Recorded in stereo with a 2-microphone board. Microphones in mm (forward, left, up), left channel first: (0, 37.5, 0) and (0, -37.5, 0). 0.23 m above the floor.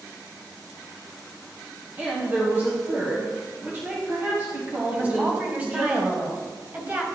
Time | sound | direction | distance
2.0 | a woman speaking | 30° right (ahead or behind) | 1.1 m
4.9 | a woman speaking | 20° right (ahead or behind) | 1.1 m